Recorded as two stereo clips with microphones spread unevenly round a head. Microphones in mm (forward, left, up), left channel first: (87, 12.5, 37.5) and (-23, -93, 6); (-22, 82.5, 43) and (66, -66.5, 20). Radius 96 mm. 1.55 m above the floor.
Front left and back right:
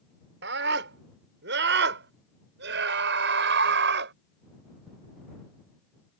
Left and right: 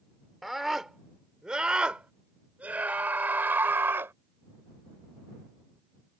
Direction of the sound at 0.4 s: 150° right.